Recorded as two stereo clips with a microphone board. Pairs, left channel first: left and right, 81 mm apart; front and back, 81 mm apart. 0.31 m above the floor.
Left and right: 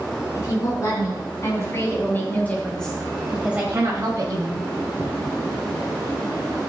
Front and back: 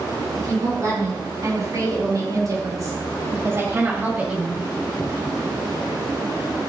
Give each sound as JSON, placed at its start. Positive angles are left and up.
{"t": 0.3, "sound": "a woman speaking", "azimuth_deg": 135, "distance_m": 4.5}